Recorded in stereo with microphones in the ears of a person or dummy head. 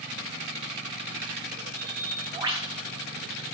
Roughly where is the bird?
Centre.